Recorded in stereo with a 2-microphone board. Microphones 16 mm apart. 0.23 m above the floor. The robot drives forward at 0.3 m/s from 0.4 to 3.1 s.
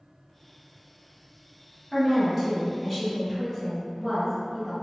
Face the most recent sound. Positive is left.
turn(degrees=-20)  # may be behind; listen again after turning